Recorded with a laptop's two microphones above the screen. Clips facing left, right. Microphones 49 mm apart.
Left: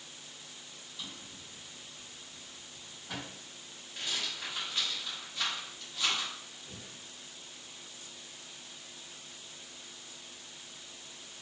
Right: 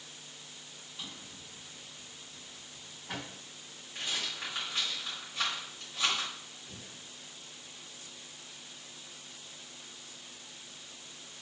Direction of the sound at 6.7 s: 30° left (ahead or behind).